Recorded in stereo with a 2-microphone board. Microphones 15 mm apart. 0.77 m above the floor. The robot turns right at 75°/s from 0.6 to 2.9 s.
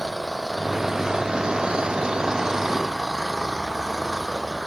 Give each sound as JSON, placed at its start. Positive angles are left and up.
{"t": 0.0, "sound": "an engine running", "azimuth_deg": 180}